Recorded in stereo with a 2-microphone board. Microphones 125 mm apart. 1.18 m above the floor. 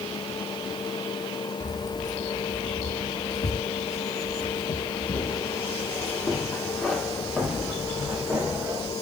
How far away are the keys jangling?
About 2.5 m.